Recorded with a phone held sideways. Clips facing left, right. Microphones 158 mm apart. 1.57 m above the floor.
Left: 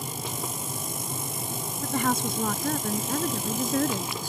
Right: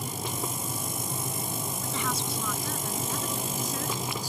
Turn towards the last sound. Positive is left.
turn(degrees=55)  # may be behind; listen again after turning